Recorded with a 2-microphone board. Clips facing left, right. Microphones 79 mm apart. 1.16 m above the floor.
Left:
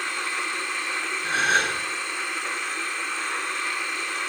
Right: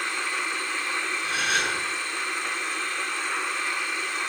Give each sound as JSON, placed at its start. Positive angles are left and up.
{"t": 1.2, "sound": "a gasp", "side_deg": 35, "distance_m": 8.5}